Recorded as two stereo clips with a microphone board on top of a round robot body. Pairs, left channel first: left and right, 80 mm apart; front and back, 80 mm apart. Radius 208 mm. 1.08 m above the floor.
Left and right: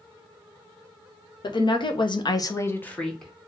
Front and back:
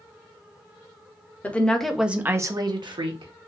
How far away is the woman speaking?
About 1.6 m.